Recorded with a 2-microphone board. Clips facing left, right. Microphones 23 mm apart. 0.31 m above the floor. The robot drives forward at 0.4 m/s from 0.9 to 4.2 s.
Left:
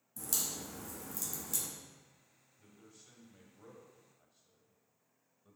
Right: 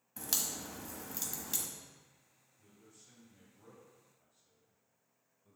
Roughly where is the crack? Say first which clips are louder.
Right 1 dB; right.